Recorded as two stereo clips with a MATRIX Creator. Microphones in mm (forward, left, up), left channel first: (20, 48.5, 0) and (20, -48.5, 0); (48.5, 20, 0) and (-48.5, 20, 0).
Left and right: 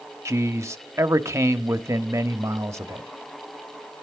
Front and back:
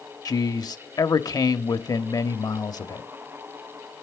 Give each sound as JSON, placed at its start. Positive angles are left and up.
{"t": 0.2, "sound": "a man speaking", "azimuth_deg": -35, "distance_m": 1.0}